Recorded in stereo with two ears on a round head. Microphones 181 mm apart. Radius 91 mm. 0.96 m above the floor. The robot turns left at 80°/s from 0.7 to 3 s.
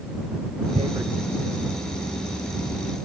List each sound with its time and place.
0.8 s tearing paper: 30° right (ahead or behind); by 1.1 s centre (ahead or behind)